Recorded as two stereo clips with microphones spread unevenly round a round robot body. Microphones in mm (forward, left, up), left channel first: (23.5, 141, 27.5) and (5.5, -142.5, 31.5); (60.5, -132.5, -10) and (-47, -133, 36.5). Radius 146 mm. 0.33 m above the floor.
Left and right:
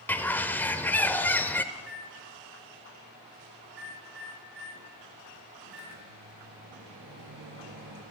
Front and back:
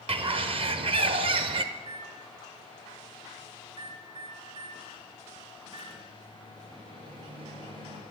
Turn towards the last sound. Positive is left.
turn(degrees=-145)